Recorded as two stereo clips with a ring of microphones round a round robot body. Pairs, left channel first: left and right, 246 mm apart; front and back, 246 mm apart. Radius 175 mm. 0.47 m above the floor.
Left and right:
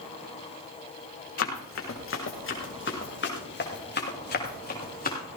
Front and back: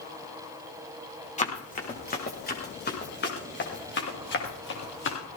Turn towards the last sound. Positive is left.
turn(degrees=35)